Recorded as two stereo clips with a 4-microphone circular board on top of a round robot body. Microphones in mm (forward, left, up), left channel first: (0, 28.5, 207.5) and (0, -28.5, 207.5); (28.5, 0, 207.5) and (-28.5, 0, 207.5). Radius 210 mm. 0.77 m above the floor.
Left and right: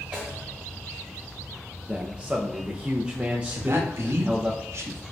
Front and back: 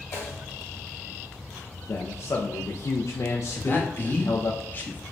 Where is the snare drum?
25° right, 2.0 m.